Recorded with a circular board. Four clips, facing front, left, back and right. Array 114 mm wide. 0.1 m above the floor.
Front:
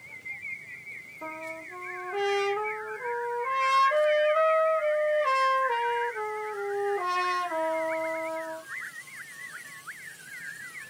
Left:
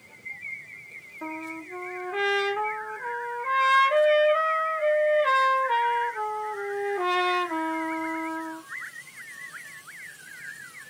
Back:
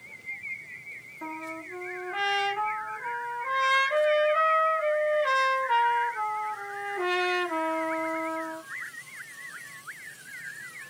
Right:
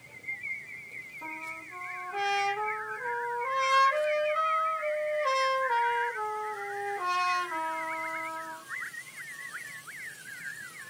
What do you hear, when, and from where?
1.2 s a trumpet: 120° left, 1.7 m